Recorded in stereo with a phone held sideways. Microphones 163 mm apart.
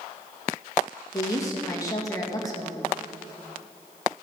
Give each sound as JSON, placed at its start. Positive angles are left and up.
{"t": 1.1, "sound": "a woman speaking", "side_deg": 20, "distance_m": 2.5}